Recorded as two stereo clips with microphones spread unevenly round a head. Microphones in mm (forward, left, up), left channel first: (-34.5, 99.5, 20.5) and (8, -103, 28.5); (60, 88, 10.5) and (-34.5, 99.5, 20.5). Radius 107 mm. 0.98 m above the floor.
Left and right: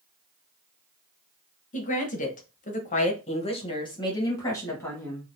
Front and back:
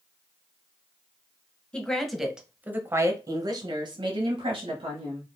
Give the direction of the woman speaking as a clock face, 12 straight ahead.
10 o'clock.